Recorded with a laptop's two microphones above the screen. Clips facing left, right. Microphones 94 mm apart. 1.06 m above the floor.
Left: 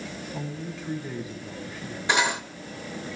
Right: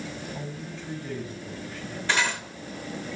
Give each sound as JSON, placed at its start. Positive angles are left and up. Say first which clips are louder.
{"t": 0.3, "sound": "a man speaking", "louder": "left 2 dB", "side_deg": 5, "distance_m": 8.0}
{"t": 2.1, "sound": "cutlery clinking", "louder": "left 3 dB", "side_deg": 20, "distance_m": 2.0}